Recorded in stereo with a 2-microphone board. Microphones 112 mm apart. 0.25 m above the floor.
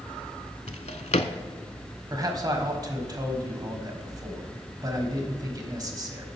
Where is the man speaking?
35° right (ahead or behind), 1.4 m.